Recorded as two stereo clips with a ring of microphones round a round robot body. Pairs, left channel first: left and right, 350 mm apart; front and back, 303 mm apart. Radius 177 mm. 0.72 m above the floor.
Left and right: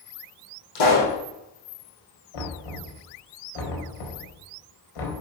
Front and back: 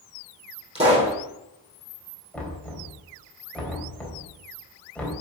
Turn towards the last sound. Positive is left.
turn(degrees=85)